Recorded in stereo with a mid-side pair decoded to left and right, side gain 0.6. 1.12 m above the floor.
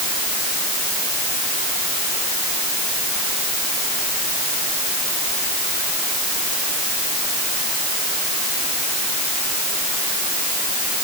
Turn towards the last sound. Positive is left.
No sound to turn to.